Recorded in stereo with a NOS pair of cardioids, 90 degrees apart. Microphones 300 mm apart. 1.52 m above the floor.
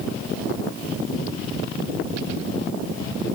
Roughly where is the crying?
No crying in this recording.